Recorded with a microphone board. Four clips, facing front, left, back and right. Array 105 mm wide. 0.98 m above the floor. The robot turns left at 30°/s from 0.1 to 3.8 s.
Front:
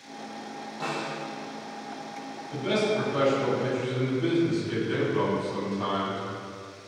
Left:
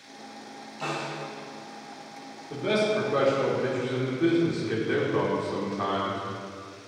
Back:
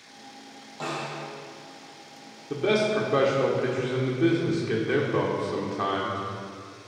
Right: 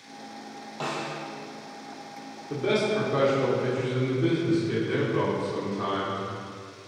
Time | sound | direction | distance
0.8 | a snare drum | 100° right | 4 m
2.5 | a man speaking | 160° right | 3 m